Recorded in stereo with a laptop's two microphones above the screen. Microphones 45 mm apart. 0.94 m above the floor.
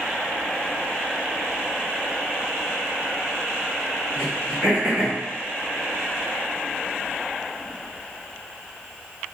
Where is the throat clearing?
5° right (ahead or behind), 1.3 m.